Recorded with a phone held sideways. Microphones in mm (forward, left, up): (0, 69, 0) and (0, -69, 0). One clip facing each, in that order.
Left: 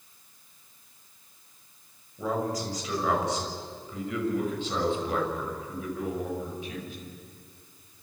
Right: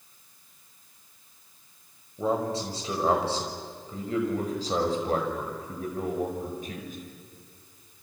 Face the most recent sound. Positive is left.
turn(degrees=-45)  # may be behind; listen again after turning